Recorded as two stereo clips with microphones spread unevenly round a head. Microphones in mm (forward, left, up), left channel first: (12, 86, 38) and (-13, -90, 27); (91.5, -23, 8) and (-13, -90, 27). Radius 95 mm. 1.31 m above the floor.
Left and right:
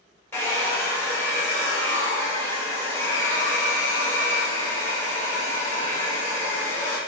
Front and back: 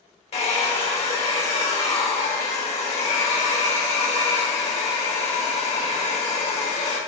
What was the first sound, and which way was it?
A hair dryer, 15° left.